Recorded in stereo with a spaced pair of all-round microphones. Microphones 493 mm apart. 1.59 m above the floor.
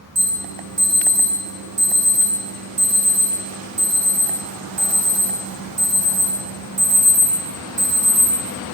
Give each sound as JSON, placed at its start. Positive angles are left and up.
{"t": 0.1, "sound": "an alarm", "side_deg": -50, "distance_m": 2.0}